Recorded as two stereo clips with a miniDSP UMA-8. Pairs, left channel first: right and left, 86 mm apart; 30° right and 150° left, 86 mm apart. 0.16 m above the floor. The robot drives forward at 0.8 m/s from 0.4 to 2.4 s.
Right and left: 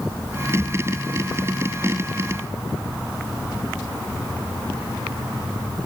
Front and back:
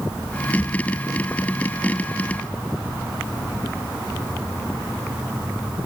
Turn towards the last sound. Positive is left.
No sound to turn to.